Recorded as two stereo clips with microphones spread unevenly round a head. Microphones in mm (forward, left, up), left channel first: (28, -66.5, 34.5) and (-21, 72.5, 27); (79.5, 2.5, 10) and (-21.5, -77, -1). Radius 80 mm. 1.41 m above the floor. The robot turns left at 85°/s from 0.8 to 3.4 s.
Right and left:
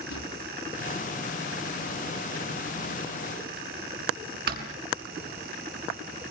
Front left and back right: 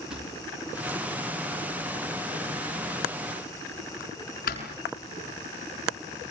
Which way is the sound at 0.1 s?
55° right.